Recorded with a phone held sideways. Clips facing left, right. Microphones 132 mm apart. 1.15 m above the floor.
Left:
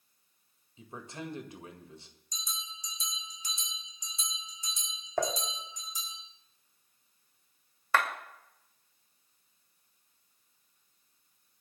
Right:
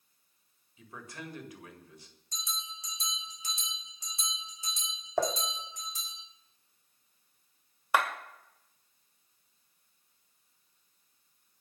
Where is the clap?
15° right (ahead or behind), 2 m.